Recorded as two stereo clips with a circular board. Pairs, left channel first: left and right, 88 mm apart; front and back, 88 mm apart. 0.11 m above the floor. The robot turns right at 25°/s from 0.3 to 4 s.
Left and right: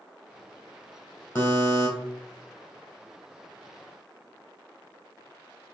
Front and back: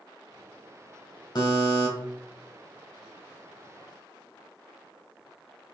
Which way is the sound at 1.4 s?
25° left.